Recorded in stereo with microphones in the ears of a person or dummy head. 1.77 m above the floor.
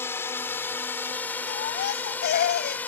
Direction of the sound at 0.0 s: 10° left (ahead or behind).